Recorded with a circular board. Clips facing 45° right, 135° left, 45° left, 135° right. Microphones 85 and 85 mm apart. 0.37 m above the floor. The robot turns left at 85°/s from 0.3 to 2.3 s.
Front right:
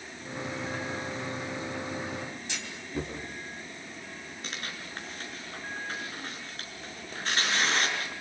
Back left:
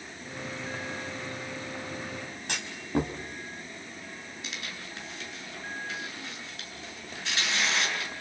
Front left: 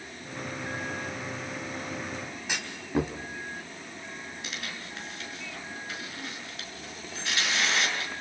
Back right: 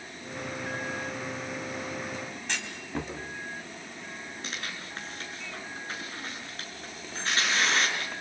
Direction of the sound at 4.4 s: 90° right.